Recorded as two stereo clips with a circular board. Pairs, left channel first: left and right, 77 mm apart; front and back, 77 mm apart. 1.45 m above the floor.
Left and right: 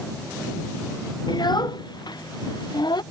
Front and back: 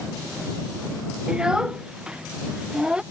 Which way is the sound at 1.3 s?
100° left.